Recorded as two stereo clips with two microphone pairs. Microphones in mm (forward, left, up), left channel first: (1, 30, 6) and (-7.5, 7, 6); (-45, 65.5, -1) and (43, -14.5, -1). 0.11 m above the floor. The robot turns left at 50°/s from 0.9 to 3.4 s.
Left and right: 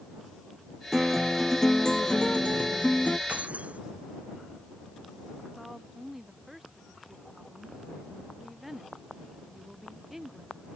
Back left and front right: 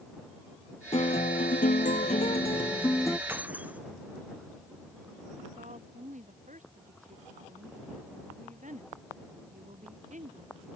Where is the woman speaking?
30° right.